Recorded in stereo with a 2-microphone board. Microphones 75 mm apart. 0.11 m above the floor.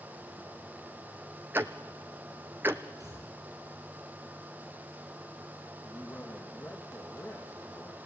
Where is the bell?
No bell in this recording.